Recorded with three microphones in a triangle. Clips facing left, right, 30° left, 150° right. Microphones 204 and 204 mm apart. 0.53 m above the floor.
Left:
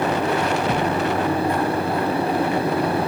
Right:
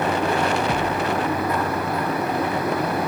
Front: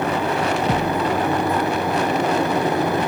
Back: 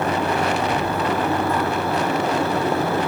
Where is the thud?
25° left, 2.5 m.